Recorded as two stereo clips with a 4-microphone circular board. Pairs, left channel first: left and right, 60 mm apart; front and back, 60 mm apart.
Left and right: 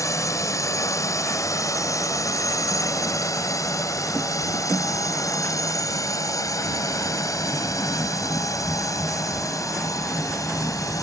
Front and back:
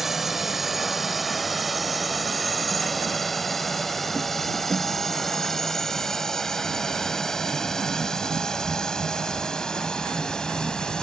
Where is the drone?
95° left; by 11.0 s 75° left.